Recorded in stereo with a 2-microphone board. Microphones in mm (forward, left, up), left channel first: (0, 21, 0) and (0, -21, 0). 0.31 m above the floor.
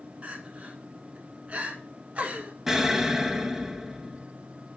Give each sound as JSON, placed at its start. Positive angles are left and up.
{"t": 0.2, "sound": "crying", "side_deg": -35, "distance_m": 1.2}
{"t": 2.7, "sound": "an explosion", "side_deg": -10, "distance_m": 0.7}